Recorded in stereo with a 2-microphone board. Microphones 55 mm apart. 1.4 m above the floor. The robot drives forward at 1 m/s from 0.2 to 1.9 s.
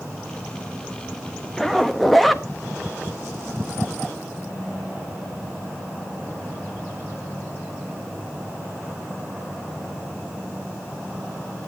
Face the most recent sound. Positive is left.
turn(degrees=5)  # may be behind; listen again after turning